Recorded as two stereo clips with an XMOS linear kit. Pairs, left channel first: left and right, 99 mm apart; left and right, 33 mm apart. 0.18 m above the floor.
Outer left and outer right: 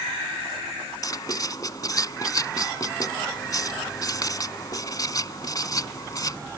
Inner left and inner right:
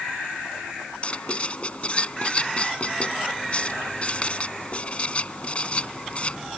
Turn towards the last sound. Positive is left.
turn(degrees=40)  # may be behind; listen again after turning